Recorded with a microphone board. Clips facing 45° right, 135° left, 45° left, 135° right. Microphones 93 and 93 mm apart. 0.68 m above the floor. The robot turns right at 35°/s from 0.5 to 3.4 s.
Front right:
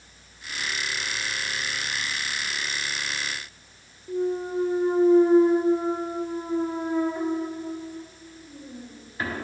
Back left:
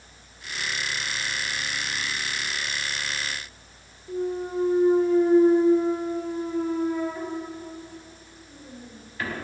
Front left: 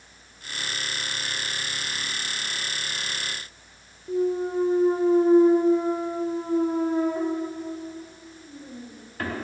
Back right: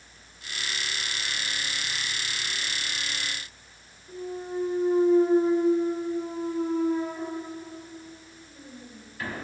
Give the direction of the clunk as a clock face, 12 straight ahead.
11 o'clock.